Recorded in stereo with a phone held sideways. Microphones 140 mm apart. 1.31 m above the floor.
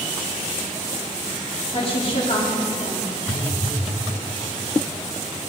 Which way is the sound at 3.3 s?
65° left (ahead or behind).